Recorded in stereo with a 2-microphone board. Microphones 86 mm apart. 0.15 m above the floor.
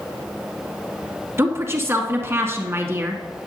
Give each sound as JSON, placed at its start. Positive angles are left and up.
{"t": 1.4, "sound": "a woman speaking", "side_deg": -30, "distance_m": 1.5}